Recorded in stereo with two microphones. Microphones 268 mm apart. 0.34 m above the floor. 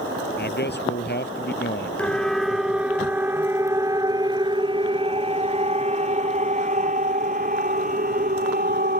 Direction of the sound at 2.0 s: 5° left (ahead or behind).